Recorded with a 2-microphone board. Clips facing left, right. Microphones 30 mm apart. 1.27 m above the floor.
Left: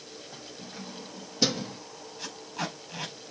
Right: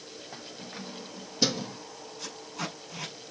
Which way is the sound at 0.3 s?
40° right (ahead or behind).